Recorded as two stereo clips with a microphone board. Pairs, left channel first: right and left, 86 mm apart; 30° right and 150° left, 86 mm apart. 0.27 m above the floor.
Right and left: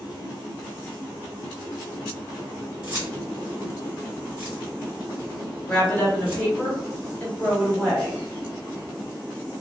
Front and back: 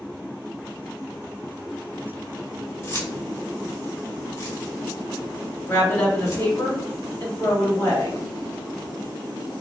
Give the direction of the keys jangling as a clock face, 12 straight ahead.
11 o'clock.